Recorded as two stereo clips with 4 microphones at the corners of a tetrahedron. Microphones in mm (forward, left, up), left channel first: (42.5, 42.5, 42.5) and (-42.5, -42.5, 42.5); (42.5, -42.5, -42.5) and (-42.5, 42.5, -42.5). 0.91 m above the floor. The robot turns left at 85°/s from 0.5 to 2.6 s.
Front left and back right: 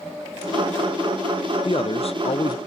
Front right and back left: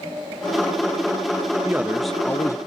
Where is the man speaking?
80° left, 0.5 m; by 2.6 s straight ahead, 0.5 m.